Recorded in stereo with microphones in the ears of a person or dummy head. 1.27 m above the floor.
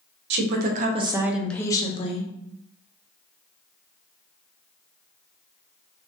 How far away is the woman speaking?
About 0.9 m.